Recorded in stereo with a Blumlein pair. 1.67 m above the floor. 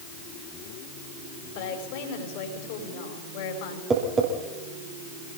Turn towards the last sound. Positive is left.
turn(degrees=-20)